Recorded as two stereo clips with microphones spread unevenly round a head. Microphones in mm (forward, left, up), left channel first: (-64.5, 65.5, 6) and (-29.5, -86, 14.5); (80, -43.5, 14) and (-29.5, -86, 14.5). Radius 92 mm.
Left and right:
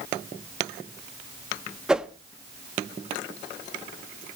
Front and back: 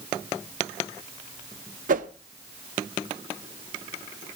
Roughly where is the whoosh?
Behind.